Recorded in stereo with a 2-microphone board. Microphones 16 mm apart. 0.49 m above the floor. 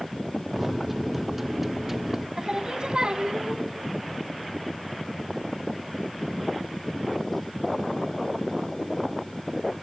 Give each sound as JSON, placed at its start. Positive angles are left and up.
{"t": 0.6, "sound": "a microwave", "side_deg": -15, "distance_m": 0.6}
{"t": 2.4, "sound": "singing", "side_deg": -55, "distance_m": 1.0}